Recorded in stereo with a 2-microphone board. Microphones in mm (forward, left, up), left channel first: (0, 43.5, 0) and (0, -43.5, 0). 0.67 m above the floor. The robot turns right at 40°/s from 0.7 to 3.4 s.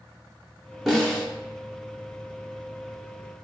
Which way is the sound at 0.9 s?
Centre (ahead or behind).